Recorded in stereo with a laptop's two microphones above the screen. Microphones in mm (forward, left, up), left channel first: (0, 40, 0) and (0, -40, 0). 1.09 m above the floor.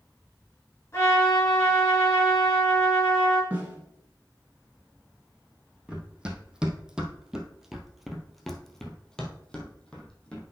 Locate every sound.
0.9 s a trumpet: 30° left (ahead or behind), 5 m
3.5 s a snare drum: 20° right (ahead or behind), 2 m
5.9 s running footsteps: 10° right (ahead or behind), 1.9 m; by 10.4 s 15° left (ahead or behind), 1.8 m